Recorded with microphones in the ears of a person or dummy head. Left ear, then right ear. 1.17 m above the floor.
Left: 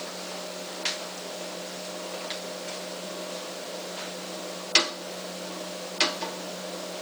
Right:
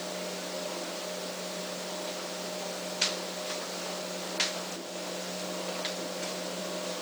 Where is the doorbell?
No doorbell in this recording.